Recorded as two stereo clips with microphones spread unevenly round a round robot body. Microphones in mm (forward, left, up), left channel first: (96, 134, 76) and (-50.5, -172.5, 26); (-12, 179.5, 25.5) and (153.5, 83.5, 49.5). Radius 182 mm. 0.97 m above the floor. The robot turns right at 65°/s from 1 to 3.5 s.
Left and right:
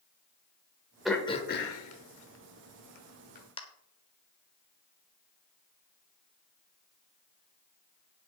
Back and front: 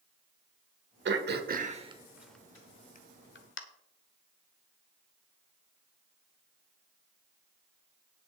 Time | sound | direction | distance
1.1 | throat clearing | 25° right | 1.2 m